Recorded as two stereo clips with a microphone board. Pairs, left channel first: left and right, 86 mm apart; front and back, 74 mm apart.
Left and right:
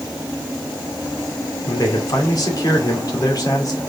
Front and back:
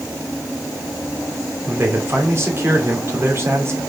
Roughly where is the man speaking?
Behind left.